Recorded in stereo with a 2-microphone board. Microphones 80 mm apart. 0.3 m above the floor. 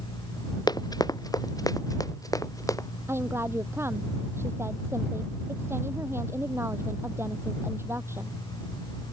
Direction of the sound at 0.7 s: 55° left (ahead or behind).